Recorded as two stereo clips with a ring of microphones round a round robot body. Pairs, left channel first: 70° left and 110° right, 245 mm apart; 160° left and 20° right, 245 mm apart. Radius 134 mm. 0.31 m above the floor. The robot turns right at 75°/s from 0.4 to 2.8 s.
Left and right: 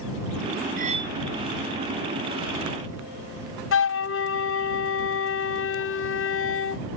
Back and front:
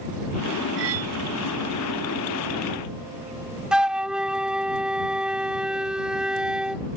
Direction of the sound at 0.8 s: 60° right.